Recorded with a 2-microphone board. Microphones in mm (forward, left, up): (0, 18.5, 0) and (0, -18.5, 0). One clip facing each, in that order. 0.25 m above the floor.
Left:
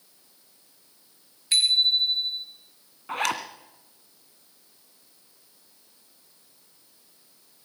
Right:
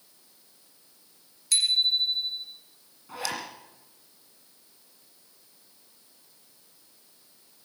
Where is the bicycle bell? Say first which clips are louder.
Left 3 dB; 35° left (ahead or behind), 3 m.